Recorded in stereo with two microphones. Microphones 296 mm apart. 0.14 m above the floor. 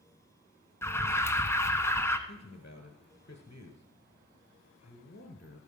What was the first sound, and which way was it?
An alarm, 10° left (ahead or behind).